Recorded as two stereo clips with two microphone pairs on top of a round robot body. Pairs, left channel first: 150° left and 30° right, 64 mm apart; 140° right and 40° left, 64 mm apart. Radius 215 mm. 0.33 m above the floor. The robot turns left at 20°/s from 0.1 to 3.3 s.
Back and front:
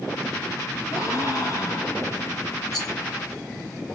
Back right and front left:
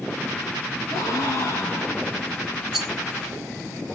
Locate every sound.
0.9 s a gasp: 170° right, 1.7 m; by 2.3 s 160° left, 1.7 m
2.7 s a rattle: 130° left, 2 m; by 2.9 s 125° left, 2 m